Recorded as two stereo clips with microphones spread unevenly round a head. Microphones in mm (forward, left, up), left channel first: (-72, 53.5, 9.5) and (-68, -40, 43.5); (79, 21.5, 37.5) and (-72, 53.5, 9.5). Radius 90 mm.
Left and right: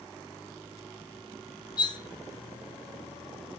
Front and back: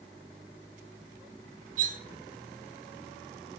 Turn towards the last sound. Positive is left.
turn(degrees=140)